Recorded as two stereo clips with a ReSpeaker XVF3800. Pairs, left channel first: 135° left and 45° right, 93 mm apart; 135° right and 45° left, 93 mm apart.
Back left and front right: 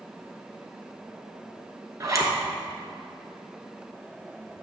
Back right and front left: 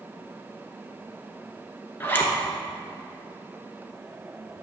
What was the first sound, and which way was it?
A zipper, 80° right.